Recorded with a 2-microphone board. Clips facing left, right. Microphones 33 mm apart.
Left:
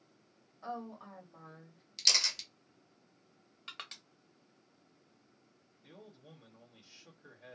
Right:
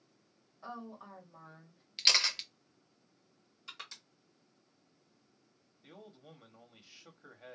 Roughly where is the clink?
I don't hear a clink.